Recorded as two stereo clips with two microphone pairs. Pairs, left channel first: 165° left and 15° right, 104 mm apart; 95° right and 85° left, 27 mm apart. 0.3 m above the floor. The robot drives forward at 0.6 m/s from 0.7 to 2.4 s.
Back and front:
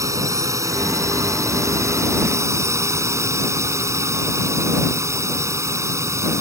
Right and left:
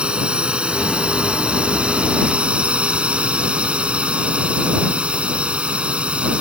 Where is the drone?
40° left; by 6.4 s 45° left.